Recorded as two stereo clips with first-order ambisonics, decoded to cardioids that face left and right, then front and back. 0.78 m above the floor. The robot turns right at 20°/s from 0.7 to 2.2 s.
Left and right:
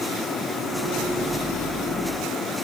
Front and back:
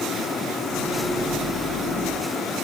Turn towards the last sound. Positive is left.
No sound to turn to.